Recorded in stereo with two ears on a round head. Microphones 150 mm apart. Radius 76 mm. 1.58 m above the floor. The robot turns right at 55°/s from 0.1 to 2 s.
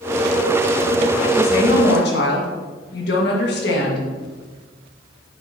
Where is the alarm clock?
No alarm clock in this recording.